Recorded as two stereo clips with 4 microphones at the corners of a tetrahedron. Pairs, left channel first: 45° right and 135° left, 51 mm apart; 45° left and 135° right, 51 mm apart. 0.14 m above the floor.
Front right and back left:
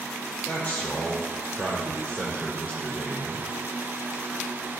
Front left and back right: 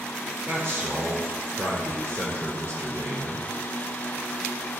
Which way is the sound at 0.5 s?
95° right.